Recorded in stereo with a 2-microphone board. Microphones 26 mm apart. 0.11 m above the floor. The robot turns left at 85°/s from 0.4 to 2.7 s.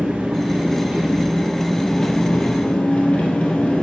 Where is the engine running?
75° right, 2.5 m; by 3.8 s 90° left, 2.5 m.